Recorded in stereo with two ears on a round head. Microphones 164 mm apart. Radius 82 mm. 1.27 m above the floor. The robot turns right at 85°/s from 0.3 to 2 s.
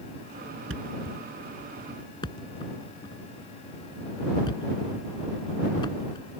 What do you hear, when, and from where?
0.7 s a thud: 85° right; by 6.3 s 25° left (ahead or behind)